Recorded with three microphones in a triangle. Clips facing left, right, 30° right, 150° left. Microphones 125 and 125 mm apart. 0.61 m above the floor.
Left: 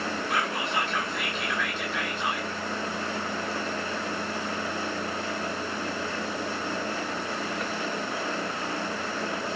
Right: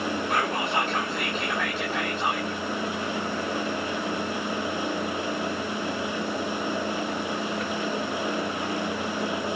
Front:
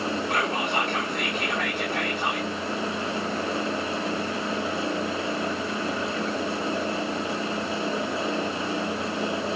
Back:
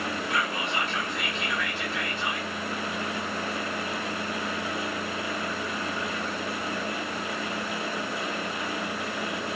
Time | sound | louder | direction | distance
0.3 | whispering | right 3 dB, front 3 dB | 55° right | 1.3 m